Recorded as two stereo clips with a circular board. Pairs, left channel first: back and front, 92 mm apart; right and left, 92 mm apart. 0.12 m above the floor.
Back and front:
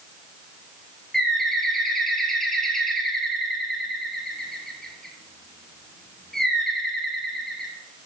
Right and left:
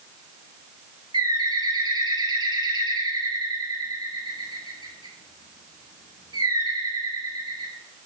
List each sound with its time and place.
1.1 s a bird: 95° left, 3 m